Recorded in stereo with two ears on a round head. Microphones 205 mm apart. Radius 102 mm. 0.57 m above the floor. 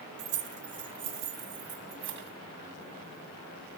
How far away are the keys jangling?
About 1.4 m.